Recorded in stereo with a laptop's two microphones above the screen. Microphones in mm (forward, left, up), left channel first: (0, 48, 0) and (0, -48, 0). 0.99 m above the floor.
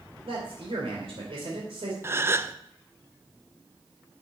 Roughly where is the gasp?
Right.